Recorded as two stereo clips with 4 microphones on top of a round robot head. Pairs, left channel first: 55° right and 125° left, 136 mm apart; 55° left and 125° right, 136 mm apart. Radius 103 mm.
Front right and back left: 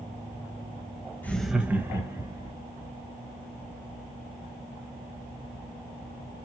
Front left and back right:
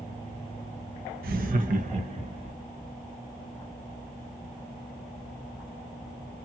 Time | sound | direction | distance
1.2 | laughter | 130° right | 0.7 m